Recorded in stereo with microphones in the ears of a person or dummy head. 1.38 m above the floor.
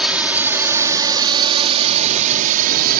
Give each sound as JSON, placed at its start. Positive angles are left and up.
{"t": 0.0, "sound": "a drone", "side_deg": -5}